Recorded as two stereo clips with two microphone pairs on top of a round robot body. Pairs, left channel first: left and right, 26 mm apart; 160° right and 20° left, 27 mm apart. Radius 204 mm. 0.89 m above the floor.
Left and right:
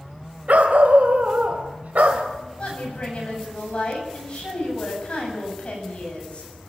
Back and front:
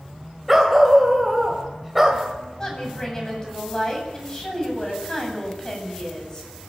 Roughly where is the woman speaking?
Behind left.